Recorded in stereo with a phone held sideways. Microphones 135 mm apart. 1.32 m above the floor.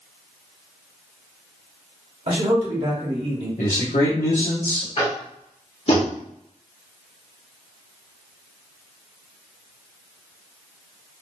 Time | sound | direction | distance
2.3 | a man speaking | 50° right (ahead or behind) | 1.2 m
3.6 | a man speaking | 80° left | 1.0 m
5.0 | tapping | 50° left (ahead or behind) | 1.4 m